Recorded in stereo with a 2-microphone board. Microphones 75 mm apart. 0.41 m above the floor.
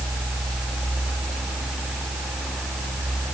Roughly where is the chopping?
No chopping in this recording.